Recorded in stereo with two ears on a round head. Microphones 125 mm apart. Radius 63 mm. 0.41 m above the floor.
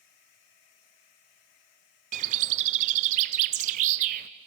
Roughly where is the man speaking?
No man speaking in this recording.